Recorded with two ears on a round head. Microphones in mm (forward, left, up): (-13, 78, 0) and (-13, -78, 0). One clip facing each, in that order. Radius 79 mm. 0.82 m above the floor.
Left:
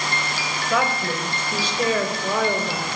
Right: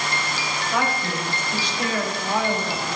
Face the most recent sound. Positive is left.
turn(degrees=75)  # may be behind; listen again after turning